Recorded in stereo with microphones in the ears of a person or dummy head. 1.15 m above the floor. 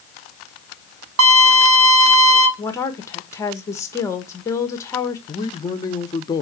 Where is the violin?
75° right (ahead or behind), 1.2 m.